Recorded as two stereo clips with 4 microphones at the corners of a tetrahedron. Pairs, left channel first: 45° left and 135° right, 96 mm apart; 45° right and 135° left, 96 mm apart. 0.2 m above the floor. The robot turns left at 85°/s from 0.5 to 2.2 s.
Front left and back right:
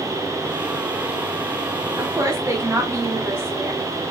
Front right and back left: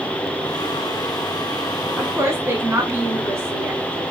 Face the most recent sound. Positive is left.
turn(degrees=175)